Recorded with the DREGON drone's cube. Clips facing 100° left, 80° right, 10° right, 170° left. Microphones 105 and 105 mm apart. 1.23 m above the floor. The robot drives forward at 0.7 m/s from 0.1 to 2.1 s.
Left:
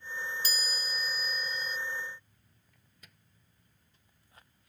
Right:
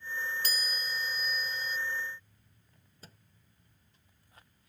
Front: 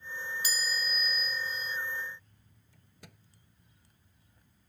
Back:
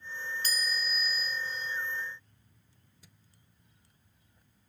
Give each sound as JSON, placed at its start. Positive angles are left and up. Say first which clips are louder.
{"t": 0.4, "sound": "a chime", "louder": "right 1 dB, even", "azimuth_deg": -90}
{"t": 2.7, "sound": "a microwave", "louder": "right 6 dB, front 11 dB", "azimuth_deg": -25}